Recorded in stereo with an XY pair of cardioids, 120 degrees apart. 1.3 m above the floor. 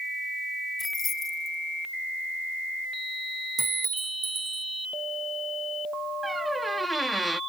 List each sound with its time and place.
0.8 s keys jangling: 35° left
3.6 s a clink: 25° right
6.2 s a squeak: 10° right